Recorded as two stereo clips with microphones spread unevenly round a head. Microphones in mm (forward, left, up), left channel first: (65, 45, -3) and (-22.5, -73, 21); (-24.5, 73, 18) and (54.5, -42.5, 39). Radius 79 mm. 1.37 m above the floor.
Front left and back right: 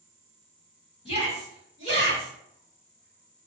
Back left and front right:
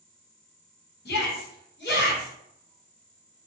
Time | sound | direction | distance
1.1 | a shout | 115° left | 1.5 m